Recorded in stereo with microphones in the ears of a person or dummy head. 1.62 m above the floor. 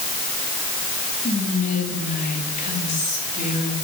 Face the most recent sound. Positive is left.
turn(degrees=45)  # may be behind; listen again after turning